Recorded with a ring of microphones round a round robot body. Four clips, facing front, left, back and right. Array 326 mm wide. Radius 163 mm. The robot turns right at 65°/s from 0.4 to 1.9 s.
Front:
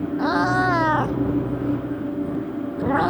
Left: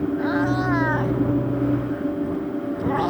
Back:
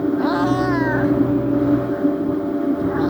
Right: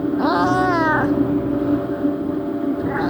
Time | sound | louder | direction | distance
0.2 | a cat meowing | right 8 dB, back 2 dB | 85° right | ?